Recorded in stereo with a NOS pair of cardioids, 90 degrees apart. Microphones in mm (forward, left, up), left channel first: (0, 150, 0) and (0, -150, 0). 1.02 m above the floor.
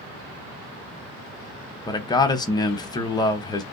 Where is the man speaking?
15° left, 0.8 m.